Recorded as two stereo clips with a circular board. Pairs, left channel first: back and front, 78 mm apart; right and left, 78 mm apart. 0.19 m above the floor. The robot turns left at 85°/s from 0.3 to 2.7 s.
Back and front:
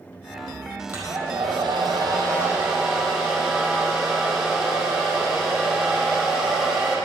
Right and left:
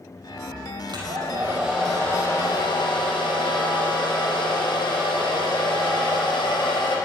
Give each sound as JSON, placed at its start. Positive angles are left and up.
{"t": 0.9, "sound": "a hair dryer", "azimuth_deg": 65, "distance_m": 4.5}